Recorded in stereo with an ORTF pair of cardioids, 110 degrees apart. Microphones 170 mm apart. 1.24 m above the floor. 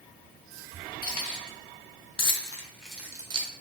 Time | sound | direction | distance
1.0 | keys jangling | 55° left | 1.2 m